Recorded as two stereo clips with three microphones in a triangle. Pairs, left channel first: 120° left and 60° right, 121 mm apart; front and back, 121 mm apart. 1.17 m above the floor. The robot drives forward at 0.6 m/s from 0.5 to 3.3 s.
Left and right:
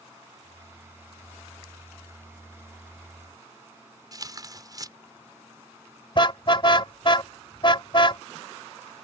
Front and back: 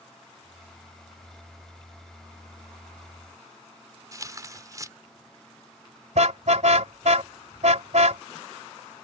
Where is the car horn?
165° left.